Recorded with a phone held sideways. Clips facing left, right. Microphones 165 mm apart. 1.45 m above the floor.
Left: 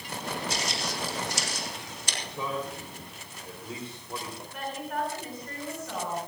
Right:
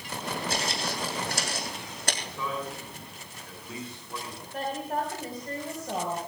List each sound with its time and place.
0.5 s footsteps: 55° right (ahead or behind), 3.5 m; by 2.1 s 65° right (ahead or behind), 3.5 m
2.2 s a man speaking: 30° left (ahead or behind), 3.5 m
4.5 s a woman speaking: 40° right (ahead or behind), 4.5 m